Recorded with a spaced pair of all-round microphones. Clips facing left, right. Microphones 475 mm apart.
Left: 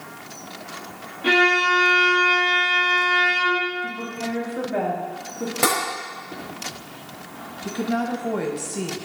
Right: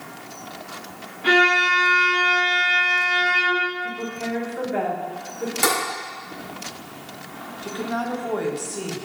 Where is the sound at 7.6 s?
45° left (ahead or behind), 1.4 m.